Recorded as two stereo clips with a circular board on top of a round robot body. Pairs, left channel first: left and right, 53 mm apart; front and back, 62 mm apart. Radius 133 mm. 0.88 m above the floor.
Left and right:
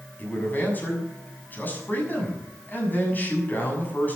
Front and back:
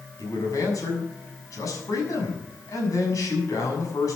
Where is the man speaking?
35° left, 6.5 m.